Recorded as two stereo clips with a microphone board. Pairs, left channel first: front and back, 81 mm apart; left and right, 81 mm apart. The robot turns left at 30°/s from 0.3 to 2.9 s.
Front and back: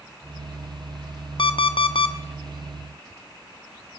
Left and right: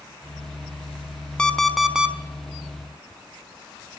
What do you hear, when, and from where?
1.4 s an alarm clock: 10° left, 0.6 m; by 2.1 s 10° right, 0.6 m